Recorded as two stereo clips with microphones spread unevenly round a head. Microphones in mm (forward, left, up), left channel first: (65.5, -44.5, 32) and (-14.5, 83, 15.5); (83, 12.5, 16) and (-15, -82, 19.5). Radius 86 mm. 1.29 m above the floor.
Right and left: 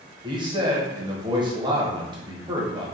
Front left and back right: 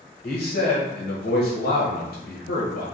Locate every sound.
0.2 s a man speaking: 65° left, 1.1 m